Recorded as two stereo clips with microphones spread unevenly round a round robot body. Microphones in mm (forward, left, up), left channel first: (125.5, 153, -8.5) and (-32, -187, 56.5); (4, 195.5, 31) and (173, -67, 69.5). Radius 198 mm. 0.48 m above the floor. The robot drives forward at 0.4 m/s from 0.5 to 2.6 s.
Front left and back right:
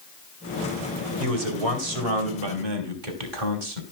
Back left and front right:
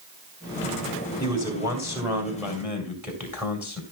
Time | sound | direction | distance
1.2 | a man speaking | 140° right | 2.5 m